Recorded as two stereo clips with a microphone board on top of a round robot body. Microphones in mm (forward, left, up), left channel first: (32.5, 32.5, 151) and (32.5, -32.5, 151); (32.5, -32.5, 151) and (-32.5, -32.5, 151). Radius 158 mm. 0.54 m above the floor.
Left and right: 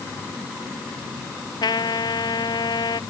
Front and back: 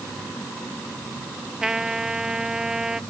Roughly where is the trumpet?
Left.